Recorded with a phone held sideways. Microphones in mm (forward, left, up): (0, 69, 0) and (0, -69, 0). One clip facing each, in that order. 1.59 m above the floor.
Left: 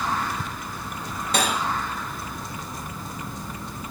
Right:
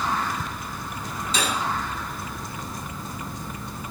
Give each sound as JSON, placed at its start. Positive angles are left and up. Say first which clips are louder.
{"t": 1.3, "sound": "cutlery clinking", "louder": "left 3 dB", "side_deg": 75, "distance_m": 5.5}